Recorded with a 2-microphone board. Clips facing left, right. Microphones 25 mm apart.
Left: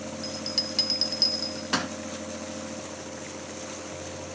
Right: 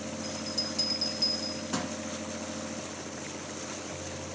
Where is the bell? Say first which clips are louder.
Left 5 dB; 75° left (ahead or behind), 1.1 m.